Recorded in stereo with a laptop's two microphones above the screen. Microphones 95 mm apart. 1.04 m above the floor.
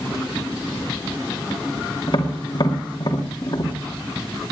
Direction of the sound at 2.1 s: 45° left (ahead or behind).